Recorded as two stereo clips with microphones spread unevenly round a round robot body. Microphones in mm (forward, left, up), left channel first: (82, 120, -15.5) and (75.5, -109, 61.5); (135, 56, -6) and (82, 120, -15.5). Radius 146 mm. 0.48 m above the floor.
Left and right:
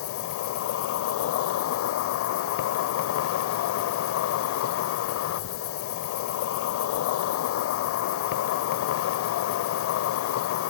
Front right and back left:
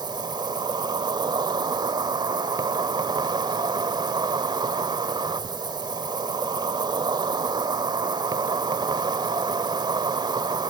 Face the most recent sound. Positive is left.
turn(degrees=100)